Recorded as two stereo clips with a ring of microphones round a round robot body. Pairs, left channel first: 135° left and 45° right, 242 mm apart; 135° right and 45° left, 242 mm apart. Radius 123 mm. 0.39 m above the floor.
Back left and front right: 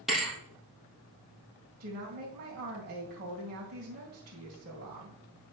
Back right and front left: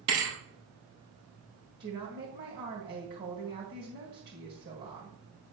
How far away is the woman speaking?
About 2 m.